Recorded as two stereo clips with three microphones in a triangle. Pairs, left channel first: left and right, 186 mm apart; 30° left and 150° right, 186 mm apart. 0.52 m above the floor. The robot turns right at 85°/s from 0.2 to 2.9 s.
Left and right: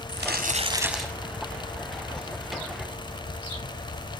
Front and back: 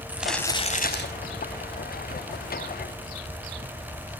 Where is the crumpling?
65° right, 2.5 m; by 1.1 s 10° left, 2.5 m.